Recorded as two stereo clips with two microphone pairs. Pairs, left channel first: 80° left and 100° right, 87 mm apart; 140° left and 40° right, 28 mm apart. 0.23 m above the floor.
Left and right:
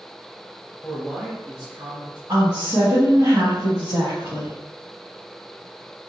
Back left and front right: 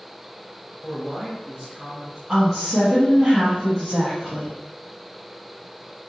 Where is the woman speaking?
110° right, 1.6 m.